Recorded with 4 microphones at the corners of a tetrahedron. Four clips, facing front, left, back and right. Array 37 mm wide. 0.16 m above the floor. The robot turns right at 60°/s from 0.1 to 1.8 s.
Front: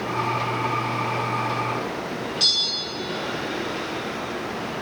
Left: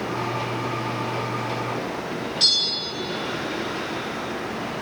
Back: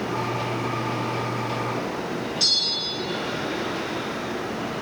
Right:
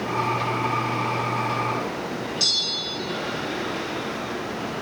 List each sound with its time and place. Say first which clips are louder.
2.4 s a bell: left 3 dB, front 1 dB; 25° left, 1.6 m